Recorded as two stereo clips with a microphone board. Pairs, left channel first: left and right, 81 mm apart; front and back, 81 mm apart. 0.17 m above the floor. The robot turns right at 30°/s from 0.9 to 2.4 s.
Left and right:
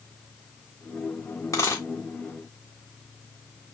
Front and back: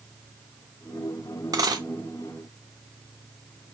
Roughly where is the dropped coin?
Behind left.